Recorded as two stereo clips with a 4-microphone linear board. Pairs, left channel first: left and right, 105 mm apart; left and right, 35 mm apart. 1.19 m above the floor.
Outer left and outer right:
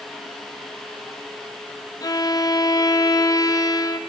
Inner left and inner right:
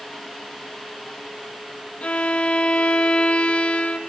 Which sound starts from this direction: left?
A violin, at 2.0 s.